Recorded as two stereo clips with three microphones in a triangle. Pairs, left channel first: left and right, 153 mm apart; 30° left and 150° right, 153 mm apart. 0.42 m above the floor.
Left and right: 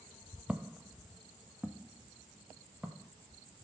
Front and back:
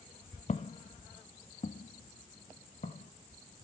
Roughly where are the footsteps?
Ahead.